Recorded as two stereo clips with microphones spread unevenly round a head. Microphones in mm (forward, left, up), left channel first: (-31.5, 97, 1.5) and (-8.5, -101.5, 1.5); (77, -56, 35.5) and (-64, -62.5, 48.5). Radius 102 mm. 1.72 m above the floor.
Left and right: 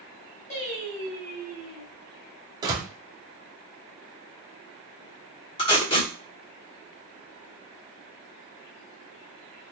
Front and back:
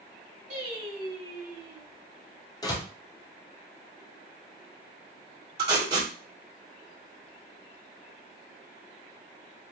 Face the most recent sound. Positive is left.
turn(degrees=150)